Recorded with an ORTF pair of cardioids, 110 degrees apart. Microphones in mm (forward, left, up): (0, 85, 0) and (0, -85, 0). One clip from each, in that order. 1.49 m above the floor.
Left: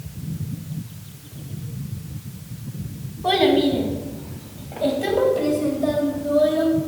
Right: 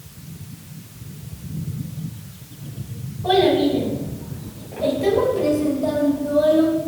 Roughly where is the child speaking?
Ahead left.